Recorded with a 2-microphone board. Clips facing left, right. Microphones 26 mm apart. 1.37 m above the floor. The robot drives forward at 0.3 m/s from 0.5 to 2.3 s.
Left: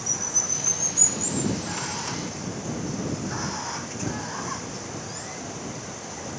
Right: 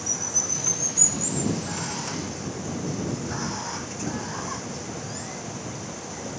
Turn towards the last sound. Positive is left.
turn(degrees=5)  # may be behind; listen again after turning